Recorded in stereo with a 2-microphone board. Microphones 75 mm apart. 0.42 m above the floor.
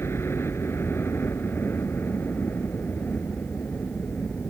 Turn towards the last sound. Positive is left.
turn(degrees=20)  # may be behind; listen again after turning